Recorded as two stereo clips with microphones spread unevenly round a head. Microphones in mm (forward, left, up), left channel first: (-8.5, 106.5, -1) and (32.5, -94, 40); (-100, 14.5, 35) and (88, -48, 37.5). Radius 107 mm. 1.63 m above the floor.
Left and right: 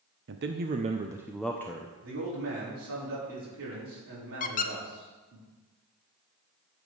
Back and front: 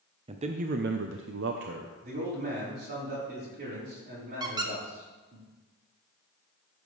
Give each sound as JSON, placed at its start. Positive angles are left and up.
{"t": 0.3, "sound": "a man speaking", "azimuth_deg": -80, "distance_m": 0.6}
{"t": 2.0, "sound": "a man speaking", "azimuth_deg": -60, "distance_m": 4.5}
{"t": 4.4, "sound": "a squeak", "azimuth_deg": 50, "distance_m": 0.6}